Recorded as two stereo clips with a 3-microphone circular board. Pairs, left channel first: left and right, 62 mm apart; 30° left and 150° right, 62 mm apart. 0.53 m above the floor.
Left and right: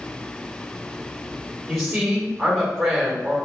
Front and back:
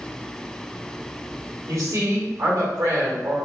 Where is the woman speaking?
Straight behind, 2 m.